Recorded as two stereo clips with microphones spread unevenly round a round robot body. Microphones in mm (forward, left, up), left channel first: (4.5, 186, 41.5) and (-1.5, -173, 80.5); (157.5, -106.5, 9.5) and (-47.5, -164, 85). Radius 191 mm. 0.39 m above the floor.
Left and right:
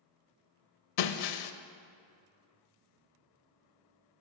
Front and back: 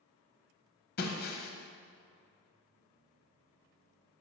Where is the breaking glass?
60° left, 0.8 m.